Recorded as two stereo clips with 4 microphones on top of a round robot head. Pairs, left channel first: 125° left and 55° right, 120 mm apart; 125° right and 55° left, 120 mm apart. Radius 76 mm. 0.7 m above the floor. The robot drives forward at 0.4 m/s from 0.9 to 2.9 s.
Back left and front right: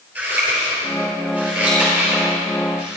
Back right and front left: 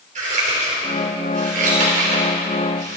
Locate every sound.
0.1 s scissors: 25° left, 5 m; by 3.0 s 30° left, 4 m